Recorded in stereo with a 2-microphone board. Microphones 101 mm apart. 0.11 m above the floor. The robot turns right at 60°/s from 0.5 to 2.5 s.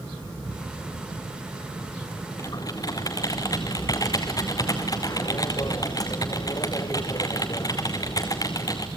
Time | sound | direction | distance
2.4 | typing on a keyboard | 35° left (ahead or behind) | 1.8 m